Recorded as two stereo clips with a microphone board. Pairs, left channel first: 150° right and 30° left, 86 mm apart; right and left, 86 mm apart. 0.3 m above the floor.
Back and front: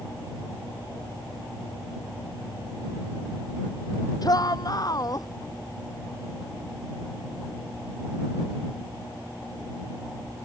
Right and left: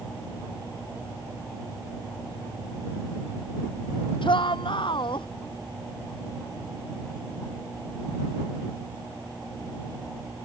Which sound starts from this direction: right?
A shout, at 4.2 s.